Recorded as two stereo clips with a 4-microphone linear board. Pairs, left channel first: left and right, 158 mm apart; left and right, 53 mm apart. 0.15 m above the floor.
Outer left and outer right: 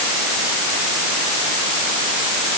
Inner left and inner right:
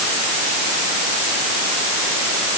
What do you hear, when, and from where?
Only background noise.